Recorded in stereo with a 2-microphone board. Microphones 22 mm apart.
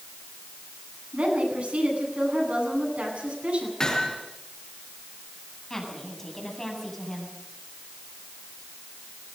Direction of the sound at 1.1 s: 85° right.